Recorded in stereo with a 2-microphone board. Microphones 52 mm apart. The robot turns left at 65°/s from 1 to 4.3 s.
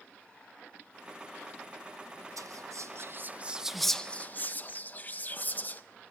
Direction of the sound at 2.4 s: 85° right.